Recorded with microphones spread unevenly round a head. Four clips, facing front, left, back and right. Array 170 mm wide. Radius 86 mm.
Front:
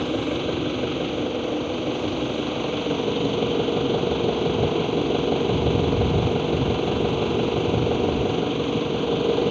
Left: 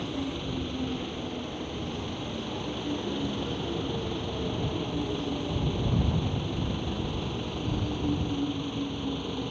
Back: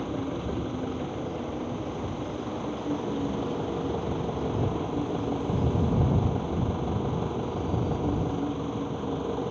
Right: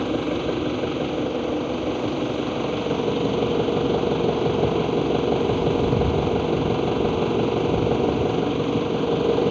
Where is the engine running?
55° right.